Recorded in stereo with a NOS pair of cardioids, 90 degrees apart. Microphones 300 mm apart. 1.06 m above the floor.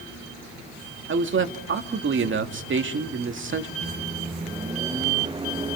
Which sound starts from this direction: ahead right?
A man speaking, at 1.1 s.